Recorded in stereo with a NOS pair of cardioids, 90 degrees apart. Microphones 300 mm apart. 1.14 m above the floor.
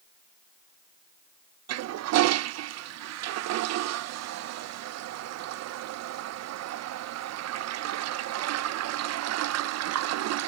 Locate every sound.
1.7 s a toilet flushing: 60° right